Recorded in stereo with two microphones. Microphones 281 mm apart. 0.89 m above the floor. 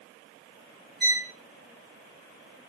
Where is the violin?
40° left (ahead or behind), 1.5 m.